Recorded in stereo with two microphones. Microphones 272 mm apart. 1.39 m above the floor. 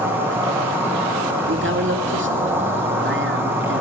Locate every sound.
0.0 s an insect: 10° right (ahead or behind), 9.5 m
1.5 s a man speaking: 45° right (ahead or behind), 2.5 m